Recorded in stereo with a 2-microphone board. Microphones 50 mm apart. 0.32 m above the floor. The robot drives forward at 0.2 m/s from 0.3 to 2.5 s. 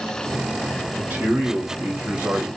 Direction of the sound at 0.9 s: 45° right (ahead or behind).